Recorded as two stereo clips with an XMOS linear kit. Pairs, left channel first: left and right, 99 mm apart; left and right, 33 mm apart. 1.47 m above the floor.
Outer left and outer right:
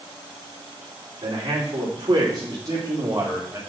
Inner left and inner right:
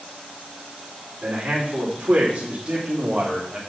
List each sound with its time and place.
1.2 s a man speaking: 50° right (ahead or behind), 5 m; by 3.6 s 30° right (ahead or behind), 4 m